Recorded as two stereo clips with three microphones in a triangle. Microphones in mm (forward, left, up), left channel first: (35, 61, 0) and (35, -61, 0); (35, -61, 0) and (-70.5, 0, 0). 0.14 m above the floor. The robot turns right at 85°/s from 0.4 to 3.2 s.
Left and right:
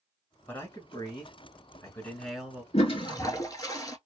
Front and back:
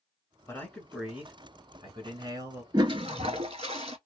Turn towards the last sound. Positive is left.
turn(degrees=140)